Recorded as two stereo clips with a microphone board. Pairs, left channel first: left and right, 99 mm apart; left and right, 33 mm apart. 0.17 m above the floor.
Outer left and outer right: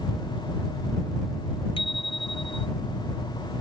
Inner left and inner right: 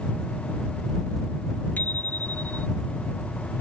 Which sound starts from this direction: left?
A bicycle bell, at 1.8 s.